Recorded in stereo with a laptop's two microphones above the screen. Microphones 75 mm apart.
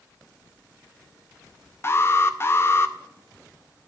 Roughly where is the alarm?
Left.